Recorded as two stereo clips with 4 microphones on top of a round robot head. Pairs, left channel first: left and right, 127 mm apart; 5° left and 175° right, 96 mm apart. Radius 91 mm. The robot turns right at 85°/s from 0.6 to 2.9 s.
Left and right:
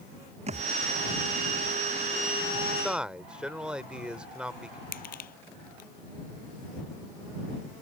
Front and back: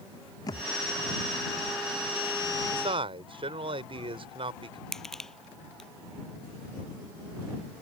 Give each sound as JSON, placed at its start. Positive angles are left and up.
{"t": 0.5, "sound": "a thud", "azimuth_deg": -55}
{"t": 2.7, "sound": "a man speaking", "azimuth_deg": 170}
{"t": 4.9, "sound": "crushing", "azimuth_deg": 90}